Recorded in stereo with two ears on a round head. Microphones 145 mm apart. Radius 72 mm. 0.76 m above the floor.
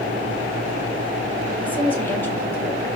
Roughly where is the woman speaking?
Centre.